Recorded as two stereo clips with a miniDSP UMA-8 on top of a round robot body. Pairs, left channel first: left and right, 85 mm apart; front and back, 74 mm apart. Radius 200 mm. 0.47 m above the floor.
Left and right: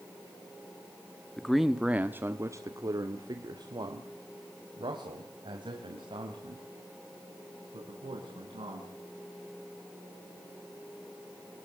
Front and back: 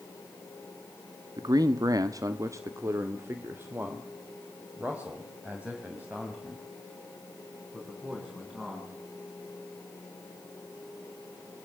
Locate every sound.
1.4 s a man speaking: 175° left, 1.3 m; by 8.9 s 100° right, 6.5 m